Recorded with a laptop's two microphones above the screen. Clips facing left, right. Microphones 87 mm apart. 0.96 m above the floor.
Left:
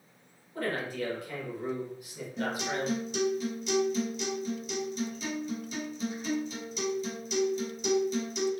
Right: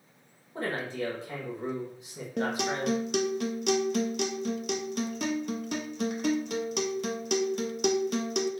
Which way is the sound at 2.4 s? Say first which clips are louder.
Right 3 dB; 75° right (ahead or behind).